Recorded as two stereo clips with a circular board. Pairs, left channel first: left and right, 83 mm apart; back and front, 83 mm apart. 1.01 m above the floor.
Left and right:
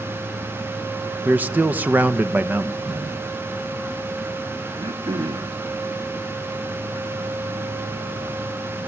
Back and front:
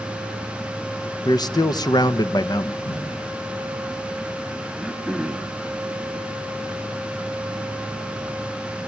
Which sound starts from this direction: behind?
A whoosh, at 2.8 s.